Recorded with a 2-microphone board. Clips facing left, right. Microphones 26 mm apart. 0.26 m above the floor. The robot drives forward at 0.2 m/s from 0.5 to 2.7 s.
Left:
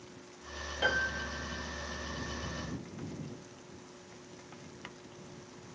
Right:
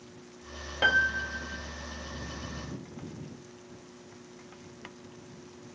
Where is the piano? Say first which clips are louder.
Right 7 dB; 40° right (ahead or behind), 0.6 m.